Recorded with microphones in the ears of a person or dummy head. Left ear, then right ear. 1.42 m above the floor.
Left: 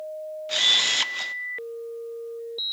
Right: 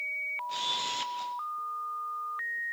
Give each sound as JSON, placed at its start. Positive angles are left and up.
{"t": 0.5, "sound": "a camera shutter", "side_deg": 40, "distance_m": 0.5}